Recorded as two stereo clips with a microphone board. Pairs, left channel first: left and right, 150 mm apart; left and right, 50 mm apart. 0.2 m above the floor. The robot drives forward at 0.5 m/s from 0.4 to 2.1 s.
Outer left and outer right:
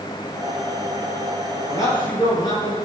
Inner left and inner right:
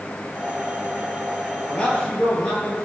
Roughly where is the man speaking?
Left.